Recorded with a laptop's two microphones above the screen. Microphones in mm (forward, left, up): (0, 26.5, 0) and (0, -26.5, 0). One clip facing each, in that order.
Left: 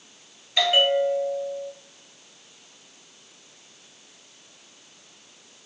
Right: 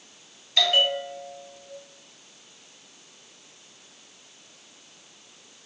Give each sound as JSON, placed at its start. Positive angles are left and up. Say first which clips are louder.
{"t": 0.6, "sound": "a bell", "louder": "left 3 dB", "side_deg": 10, "distance_m": 1.3}